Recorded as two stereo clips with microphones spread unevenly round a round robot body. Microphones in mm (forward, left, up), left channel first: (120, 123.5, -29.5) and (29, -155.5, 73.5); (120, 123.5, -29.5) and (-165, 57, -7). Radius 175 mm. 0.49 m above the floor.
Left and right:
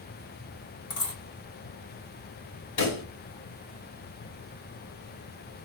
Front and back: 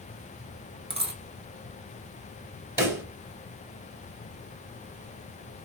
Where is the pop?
110° left, 2.5 m.